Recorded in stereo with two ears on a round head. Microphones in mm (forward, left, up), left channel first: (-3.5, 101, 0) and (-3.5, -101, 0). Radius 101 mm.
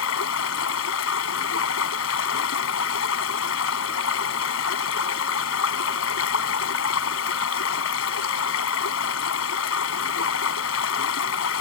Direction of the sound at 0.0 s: 65° left (ahead or behind).